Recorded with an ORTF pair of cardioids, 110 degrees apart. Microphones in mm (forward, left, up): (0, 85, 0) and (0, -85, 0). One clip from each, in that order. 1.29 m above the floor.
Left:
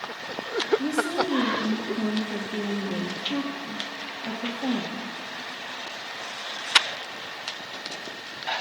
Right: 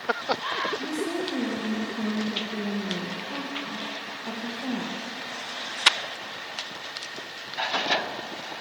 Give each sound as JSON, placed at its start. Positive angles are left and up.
{"t": 0.8, "sound": "a woman speaking", "azimuth_deg": 10, "distance_m": 1.6}